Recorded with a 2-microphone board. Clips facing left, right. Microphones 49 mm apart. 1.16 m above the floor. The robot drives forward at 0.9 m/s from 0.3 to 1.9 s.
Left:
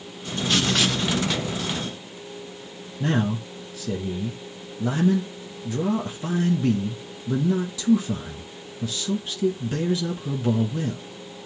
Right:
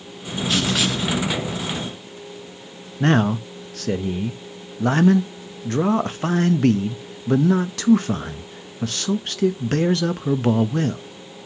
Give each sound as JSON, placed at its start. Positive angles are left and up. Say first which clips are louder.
{"t": 0.5, "sound": "writing", "louder": "right 1 dB", "side_deg": -5, "distance_m": 1.7}
{"t": 3.0, "sound": "a man speaking", "louder": "right 6 dB", "side_deg": -70, "distance_m": 1.0}